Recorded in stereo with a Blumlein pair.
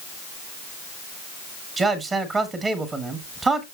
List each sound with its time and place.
1.8 s a man speaking: 15° right, 1.8 m